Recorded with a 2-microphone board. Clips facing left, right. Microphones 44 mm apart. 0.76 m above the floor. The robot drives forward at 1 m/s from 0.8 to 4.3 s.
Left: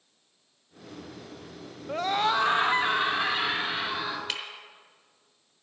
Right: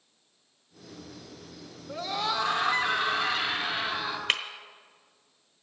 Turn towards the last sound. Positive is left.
turn(degrees=-50)  # may be behind; listen again after turning